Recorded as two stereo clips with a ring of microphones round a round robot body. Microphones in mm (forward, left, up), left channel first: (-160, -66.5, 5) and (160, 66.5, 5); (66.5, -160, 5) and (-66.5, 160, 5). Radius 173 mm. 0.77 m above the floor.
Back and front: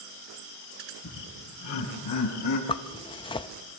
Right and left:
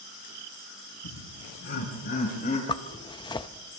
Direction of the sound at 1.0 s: 105° right.